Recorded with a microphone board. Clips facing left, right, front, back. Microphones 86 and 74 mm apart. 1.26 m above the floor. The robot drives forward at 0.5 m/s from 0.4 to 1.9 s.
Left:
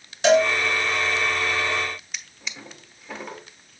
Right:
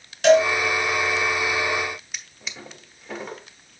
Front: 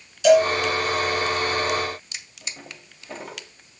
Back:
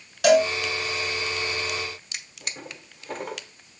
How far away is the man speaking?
No man speaking in this recording.